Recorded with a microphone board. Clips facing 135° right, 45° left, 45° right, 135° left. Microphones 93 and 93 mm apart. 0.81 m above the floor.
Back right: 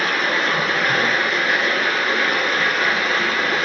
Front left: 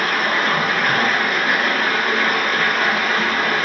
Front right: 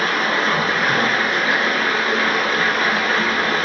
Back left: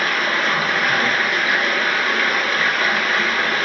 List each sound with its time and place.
0.0 s running water: 15° left, 1.5 m